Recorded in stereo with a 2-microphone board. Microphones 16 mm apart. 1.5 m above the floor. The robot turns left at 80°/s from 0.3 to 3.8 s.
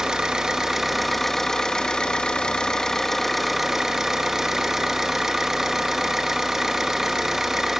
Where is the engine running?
110° right, 1.7 m; by 7.8 s 30° right, 1.7 m.